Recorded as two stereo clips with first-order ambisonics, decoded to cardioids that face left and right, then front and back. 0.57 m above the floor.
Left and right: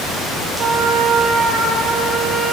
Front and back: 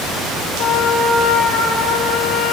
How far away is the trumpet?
About 4.5 m.